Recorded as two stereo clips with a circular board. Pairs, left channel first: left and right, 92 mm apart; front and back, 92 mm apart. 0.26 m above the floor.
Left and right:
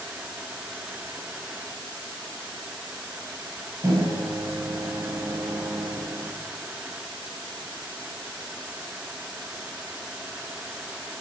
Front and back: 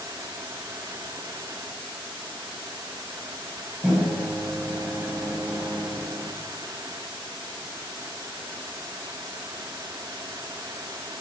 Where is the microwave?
115° right, 1.0 m.